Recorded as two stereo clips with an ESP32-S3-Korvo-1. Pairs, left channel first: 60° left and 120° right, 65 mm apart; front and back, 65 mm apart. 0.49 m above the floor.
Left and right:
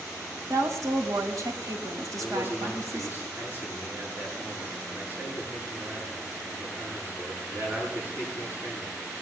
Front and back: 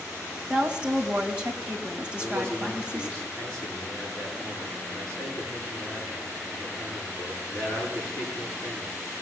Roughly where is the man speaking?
Right.